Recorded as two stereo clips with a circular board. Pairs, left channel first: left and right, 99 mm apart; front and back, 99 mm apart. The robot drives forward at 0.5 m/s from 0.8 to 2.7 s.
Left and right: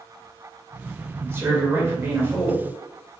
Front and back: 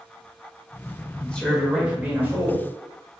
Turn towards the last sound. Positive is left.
turn(degrees=-150)